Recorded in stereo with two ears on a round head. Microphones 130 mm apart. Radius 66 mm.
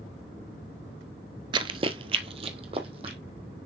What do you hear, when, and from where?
1.5 s running footsteps: 30° right (ahead or behind), 0.6 m; by 3.2 s 35° right (ahead or behind), 1.9 m